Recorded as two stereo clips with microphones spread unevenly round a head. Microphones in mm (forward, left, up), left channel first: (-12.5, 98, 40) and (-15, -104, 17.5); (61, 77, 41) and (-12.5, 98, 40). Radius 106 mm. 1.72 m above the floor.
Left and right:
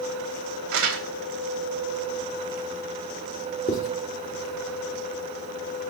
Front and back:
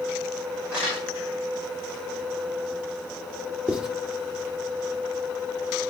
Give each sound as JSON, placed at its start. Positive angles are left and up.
{"t": 0.7, "sound": "crumpling", "azimuth_deg": -115, "distance_m": 3.5}
{"t": 3.7, "sound": "writing", "azimuth_deg": 95, "distance_m": 1.6}